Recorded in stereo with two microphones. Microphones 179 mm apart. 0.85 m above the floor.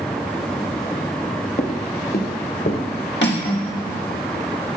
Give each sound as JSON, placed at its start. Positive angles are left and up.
{"t": 1.6, "sound": "footsteps", "side_deg": 45, "distance_m": 1.1}
{"t": 3.2, "sound": "cutlery clinking", "side_deg": 85, "distance_m": 1.3}